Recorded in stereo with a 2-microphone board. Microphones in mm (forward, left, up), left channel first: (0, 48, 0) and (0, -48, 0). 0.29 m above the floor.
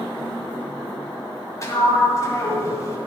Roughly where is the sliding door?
Left.